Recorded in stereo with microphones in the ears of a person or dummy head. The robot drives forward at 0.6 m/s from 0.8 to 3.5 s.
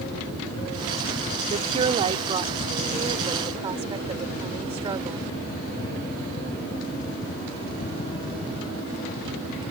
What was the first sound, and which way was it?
A woman speaking, 35° right (ahead or behind).